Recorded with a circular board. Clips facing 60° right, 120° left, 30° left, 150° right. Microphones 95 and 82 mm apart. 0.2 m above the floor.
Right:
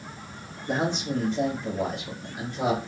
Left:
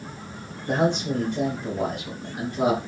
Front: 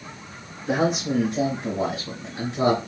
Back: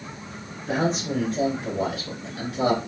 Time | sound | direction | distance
0.7 | a man speaking | 110° left | 3 m